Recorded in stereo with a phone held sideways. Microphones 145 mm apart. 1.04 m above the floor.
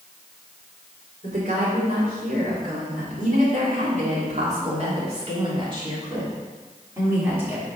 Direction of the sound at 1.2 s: 80° right.